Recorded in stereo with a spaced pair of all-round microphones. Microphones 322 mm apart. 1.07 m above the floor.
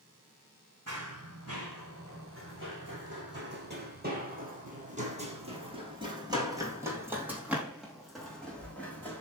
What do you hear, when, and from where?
0.9 s running footsteps: 50° right (ahead or behind), 4.5 m; by 9.2 s 5° left (ahead or behind), 4.5 m